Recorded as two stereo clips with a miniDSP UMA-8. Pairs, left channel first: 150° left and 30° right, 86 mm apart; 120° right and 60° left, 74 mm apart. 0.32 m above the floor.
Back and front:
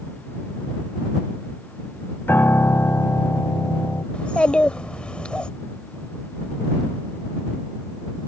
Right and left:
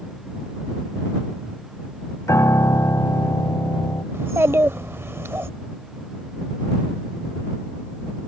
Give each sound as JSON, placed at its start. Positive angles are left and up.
{"t": 2.3, "sound": "a piano", "azimuth_deg": -150}
{"t": 4.1, "sound": "a child speaking", "azimuth_deg": 80}